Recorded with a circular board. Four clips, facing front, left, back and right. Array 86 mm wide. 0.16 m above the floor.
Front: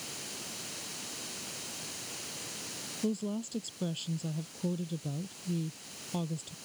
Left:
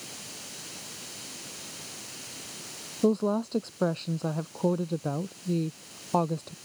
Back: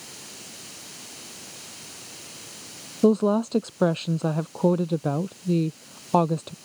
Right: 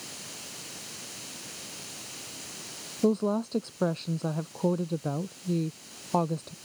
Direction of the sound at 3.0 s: 175° left.